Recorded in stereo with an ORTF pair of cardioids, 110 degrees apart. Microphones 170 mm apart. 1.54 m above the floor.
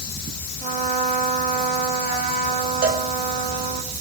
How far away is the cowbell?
About 3.5 m.